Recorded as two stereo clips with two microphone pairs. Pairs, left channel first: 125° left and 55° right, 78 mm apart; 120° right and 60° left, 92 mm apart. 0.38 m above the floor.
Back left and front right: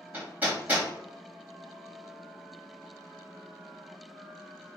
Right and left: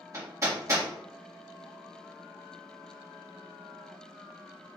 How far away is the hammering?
About 1.9 m.